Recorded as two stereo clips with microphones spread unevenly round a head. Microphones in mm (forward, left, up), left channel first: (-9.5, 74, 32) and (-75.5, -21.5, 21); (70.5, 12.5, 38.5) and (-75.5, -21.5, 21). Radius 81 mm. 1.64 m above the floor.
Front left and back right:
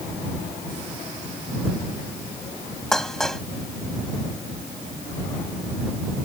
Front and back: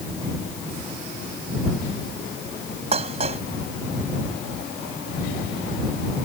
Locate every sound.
2.9 s dishes clattering: 140° left